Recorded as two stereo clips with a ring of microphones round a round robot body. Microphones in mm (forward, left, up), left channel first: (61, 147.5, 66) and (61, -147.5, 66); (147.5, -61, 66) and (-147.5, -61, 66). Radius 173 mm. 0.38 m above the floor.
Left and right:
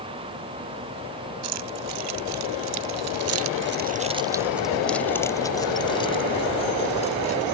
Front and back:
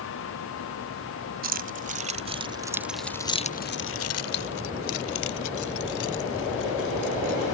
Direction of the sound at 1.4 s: 125° right.